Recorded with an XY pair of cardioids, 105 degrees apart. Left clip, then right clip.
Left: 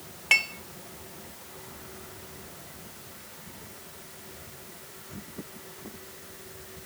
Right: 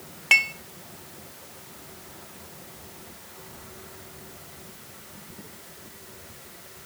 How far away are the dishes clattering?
About 0.8 m.